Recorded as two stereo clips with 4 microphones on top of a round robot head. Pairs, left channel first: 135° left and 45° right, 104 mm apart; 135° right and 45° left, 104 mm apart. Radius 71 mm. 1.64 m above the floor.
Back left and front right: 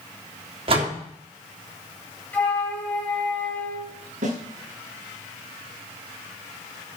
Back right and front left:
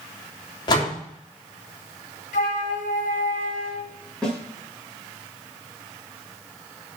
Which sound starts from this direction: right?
A door slam, at 0.7 s.